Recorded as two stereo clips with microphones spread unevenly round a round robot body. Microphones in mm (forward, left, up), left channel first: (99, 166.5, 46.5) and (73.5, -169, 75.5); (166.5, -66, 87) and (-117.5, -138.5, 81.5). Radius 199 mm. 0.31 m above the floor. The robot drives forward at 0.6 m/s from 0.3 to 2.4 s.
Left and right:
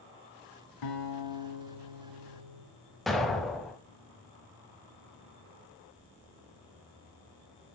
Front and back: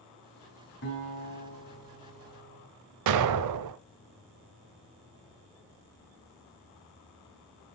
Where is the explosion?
175° left, 0.5 m.